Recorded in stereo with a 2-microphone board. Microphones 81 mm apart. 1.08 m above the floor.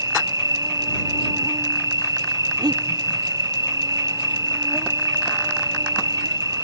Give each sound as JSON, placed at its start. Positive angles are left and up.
{"t": 0.0, "sound": "an insect", "side_deg": -45}
{"t": 2.6, "sound": "breathing", "side_deg": -65}